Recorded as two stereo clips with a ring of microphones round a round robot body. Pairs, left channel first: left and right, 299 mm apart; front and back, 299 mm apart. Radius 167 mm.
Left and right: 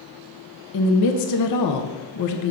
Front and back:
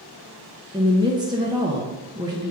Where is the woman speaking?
105° left, 0.8 m.